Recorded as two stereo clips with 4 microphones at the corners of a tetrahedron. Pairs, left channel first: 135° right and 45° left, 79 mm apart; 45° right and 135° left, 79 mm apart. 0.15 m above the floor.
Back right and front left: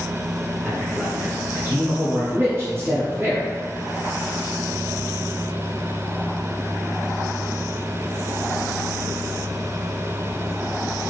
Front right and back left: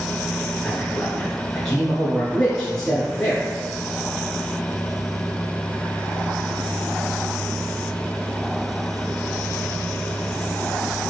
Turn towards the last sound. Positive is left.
turn(degrees=30)